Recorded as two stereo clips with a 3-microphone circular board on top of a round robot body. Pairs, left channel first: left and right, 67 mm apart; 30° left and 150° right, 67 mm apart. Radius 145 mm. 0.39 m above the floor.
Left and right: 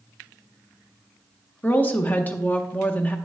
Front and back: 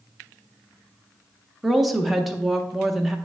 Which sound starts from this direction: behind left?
A woman speaking, at 1.6 s.